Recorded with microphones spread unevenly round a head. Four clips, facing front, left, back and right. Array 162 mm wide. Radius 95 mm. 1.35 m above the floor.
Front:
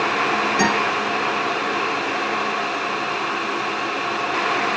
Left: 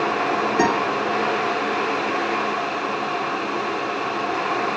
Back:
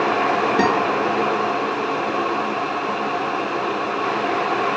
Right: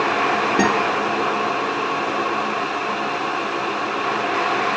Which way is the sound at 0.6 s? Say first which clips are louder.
Even, back 2 dB; 115° right.